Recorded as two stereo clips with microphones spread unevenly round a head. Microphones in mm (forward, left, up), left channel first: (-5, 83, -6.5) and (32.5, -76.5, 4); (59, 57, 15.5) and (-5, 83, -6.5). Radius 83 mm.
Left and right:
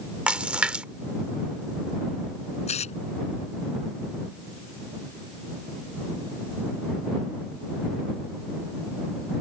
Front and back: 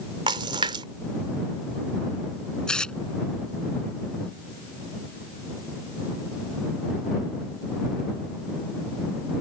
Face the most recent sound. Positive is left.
turn(degrees=50)